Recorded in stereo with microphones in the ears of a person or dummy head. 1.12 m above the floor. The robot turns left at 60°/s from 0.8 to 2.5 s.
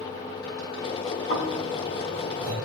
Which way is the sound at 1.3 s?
55° left (ahead or behind).